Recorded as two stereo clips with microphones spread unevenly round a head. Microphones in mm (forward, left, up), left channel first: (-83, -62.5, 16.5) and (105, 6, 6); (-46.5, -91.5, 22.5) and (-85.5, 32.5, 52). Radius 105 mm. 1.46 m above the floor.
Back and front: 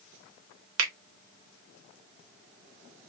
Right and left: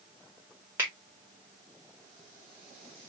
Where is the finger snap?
35° left, 0.8 m.